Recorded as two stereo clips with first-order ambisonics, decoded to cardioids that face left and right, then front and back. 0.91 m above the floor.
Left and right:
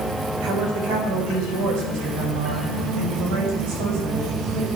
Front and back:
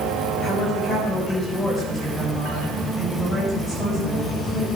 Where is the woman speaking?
70° right, 4 m; by 4.7 s 80° right, 6.5 m.